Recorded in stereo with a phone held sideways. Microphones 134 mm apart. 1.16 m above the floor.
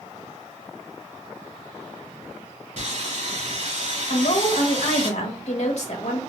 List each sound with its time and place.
2.8 s sawing: 65° right (ahead or behind), 2 m
4.1 s a woman speaking: 60° left (ahead or behind), 1.2 m